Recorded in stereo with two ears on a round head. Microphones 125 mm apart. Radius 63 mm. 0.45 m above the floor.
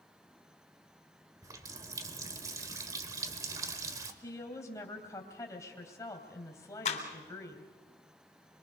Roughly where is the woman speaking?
Left.